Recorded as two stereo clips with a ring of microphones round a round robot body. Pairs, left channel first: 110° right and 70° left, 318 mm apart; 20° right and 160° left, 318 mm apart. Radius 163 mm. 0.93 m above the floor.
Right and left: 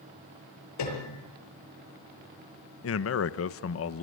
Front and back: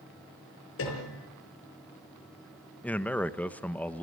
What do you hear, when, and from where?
0.8 s a piano: 75° right, 7 m
2.8 s a man speaking: 105° right, 1.0 m